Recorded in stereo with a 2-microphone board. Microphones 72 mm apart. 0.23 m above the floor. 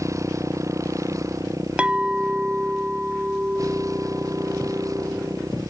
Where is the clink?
15° right (ahead or behind).